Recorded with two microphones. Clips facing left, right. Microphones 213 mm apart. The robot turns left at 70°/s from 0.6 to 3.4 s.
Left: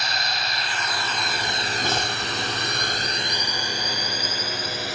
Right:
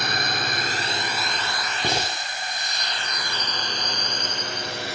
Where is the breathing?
15° right (ahead or behind); by 2.2 s 5° left (ahead or behind).